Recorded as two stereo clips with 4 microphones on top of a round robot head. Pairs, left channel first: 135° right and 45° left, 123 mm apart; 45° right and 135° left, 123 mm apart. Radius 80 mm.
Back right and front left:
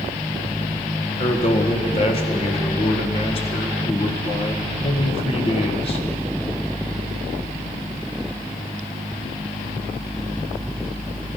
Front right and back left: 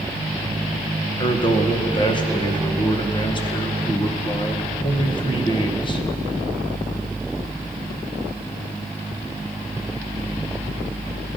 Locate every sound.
1.2 s a man speaking: 95° right, 1.6 m